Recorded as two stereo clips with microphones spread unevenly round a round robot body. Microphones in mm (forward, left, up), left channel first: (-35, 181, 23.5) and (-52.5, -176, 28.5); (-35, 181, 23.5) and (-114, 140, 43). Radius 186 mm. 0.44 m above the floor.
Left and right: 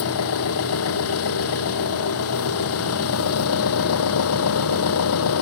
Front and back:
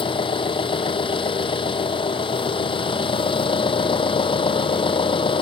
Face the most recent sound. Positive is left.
turn(degrees=35)